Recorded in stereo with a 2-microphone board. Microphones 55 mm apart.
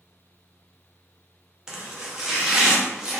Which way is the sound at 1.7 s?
15° right (ahead or behind).